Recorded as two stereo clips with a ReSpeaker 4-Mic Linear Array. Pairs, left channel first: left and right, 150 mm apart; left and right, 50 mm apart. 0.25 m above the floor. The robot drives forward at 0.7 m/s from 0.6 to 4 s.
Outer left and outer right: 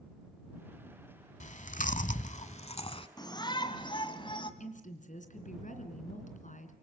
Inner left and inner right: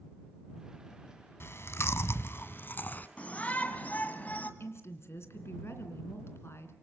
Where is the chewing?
55° left (ahead or behind), 0.9 m; by 3.1 s 35° left (ahead or behind), 1.2 m.